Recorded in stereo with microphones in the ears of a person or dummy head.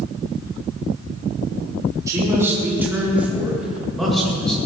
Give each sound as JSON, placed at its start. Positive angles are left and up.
{"t": 2.1, "sound": "a man speaking", "side_deg": -25, "distance_m": 4.5}